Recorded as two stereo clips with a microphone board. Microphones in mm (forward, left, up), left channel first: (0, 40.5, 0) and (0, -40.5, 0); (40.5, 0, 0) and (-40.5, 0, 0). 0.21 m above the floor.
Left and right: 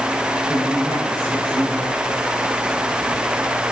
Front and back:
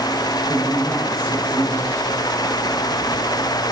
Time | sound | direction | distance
0.5 | a man speaking | 50° left | 7 m